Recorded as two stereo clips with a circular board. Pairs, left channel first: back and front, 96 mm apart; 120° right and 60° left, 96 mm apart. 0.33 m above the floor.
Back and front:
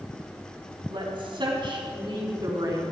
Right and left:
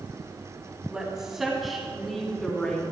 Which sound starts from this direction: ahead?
A woman speaking, at 0.9 s.